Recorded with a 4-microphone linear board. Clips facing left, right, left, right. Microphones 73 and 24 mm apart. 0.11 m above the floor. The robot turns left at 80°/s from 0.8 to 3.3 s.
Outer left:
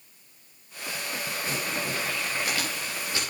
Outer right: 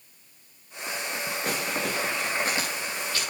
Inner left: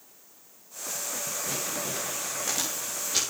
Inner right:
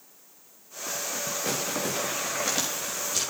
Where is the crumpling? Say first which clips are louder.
Outer right 2 dB, inner right 5 dB; 65° right (ahead or behind), 9.5 m; by 3.2 s 25° left (ahead or behind), 9.5 m.